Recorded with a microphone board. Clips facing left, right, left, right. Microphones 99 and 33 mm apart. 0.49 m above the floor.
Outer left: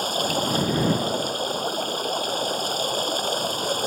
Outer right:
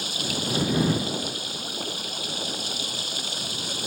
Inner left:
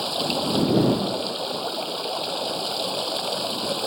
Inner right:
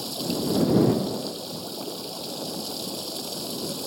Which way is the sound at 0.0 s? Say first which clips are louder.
Outer left 7 dB, inner left 4 dB; 45° left (ahead or behind).